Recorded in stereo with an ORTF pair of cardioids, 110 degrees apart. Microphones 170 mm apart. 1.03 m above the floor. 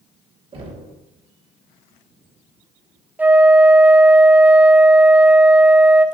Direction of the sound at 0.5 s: 35° right.